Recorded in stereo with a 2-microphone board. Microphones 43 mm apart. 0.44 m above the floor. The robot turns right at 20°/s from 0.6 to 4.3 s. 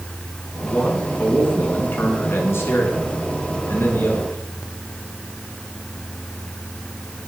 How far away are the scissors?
I don't hear scissors.